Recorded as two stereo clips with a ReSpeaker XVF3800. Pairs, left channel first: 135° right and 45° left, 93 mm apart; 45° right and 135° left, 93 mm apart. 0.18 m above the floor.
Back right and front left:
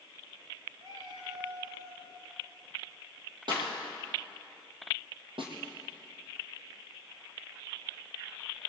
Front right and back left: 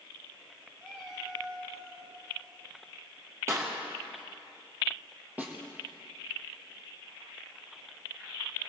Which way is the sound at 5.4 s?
60° left.